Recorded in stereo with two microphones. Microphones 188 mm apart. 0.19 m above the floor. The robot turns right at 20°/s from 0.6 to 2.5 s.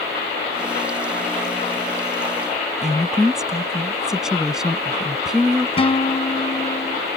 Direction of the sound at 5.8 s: 30° left (ahead or behind).